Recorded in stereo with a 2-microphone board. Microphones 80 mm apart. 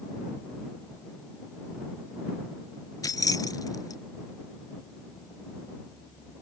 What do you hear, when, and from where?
3.0 s keys jangling: 50° left (ahead or behind)